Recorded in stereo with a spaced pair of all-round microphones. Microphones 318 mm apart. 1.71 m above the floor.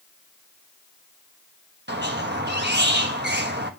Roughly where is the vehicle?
No vehicle in this recording.